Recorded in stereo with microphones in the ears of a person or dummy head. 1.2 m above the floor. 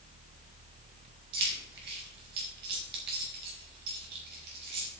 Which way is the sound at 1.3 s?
55° right (ahead or behind).